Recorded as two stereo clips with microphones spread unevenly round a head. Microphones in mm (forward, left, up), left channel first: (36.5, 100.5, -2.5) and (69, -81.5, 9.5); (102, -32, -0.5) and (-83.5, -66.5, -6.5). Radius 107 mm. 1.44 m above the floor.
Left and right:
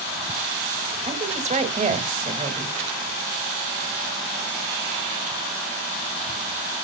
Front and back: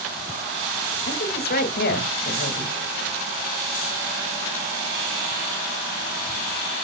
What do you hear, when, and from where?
1.1 s a woman speaking: 25° right, 2 m